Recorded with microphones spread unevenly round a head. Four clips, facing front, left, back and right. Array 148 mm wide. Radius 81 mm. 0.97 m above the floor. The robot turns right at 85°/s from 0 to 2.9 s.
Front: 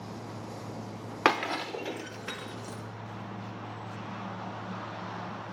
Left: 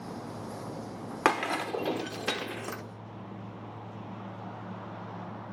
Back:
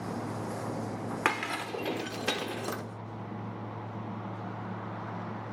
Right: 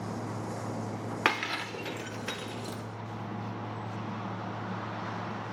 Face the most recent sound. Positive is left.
turn(degrees=175)